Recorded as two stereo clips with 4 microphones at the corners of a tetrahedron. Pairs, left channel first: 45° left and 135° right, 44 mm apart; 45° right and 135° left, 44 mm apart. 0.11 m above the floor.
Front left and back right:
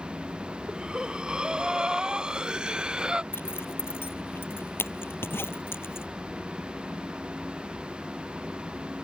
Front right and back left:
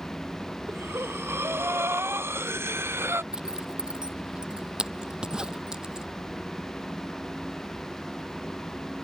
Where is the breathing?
155° left.